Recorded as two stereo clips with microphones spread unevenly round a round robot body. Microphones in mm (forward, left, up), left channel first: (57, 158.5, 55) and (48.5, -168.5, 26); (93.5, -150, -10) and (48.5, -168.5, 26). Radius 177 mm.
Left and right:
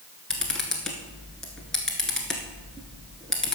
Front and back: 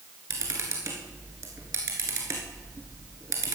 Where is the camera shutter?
175° left, 0.9 m.